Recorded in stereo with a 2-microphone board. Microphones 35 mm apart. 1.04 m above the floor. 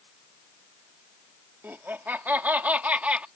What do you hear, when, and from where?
1.6 s laughter: 70° right (ahead or behind); by 3.3 s 35° right (ahead or behind)